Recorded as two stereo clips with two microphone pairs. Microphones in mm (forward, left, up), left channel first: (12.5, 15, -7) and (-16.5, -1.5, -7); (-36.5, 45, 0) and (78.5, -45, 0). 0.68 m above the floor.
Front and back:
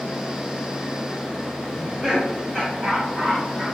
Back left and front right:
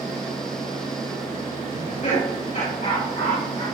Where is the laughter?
110° left, 3.5 m; by 3.6 s 115° left, 4.5 m.